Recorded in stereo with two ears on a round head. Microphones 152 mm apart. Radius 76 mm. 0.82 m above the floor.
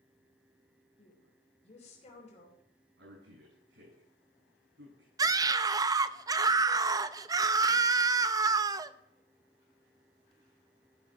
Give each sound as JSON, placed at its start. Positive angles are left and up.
{"t": 1.0, "sound": "a woman speaking", "side_deg": 40, "distance_m": 3.5}
{"t": 3.0, "sound": "a man speaking", "side_deg": -80, "distance_m": 9.5}
{"t": 5.2, "sound": "a scream", "side_deg": -20, "distance_m": 0.5}